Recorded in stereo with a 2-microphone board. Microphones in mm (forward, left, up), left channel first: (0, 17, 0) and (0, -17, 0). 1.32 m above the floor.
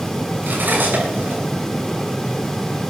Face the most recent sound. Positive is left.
turn(degrees=-80)